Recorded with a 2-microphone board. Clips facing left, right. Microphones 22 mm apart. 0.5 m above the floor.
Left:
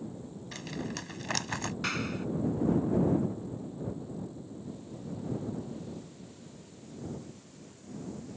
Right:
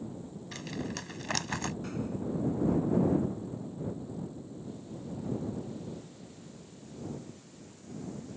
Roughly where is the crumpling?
Centre.